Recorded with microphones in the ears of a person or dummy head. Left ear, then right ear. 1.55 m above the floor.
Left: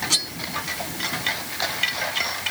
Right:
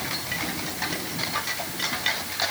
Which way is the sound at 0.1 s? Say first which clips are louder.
Left 8 dB; 65° left (ahead or behind).